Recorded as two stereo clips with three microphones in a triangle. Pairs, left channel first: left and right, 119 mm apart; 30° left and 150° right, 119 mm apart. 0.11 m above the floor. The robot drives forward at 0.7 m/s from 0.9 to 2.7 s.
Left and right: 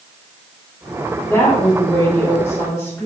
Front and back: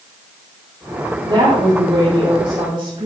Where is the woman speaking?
160° left, 4.5 m; by 3.1 s 165° left, 5.5 m.